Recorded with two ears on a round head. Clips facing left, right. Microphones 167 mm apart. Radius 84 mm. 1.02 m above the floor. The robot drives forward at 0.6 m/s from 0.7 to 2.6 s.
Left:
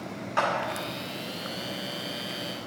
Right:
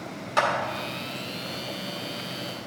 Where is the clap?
45° right (ahead or behind), 2.0 m.